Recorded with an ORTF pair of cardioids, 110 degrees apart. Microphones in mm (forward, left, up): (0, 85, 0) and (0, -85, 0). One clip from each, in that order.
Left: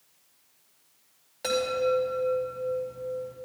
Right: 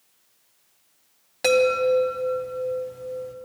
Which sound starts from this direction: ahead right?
A chime, at 1.4 s.